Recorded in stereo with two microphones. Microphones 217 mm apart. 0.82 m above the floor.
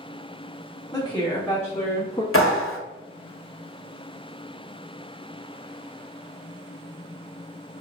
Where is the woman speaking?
5° left (ahead or behind), 1.3 m; by 2.2 s 20° left (ahead or behind), 0.6 m.